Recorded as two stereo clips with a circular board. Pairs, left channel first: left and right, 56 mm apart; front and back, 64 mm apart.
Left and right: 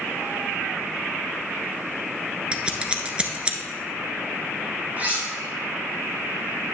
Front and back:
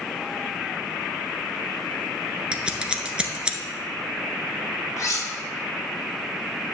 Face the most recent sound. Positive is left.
turn(degrees=-30)